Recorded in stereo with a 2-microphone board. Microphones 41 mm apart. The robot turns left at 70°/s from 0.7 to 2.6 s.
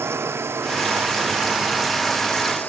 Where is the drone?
80° right; by 2.7 s 40° left (ahead or behind).